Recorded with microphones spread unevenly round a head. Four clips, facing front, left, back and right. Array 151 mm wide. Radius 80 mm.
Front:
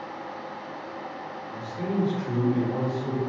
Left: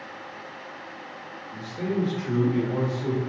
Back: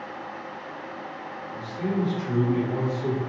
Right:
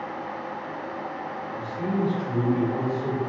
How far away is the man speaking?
About 1.8 m.